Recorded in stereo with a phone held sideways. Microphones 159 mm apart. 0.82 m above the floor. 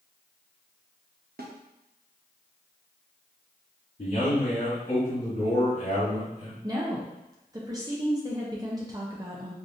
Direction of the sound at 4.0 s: 55° left (ahead or behind).